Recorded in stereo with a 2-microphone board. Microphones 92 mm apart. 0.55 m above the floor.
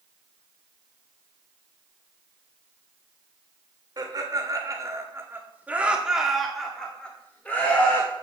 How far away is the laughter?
About 1.7 m.